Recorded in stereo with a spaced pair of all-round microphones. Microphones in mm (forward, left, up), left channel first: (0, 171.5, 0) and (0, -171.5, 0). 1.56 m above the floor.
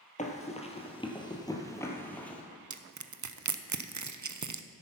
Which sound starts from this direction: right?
Crushing, at 2.7 s.